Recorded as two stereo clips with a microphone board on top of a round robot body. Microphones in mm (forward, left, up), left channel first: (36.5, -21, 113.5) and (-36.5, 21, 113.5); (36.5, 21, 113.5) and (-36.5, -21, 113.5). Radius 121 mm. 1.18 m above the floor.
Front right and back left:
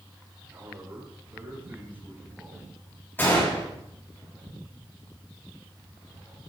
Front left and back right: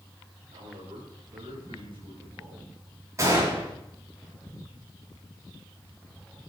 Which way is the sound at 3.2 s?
95° right.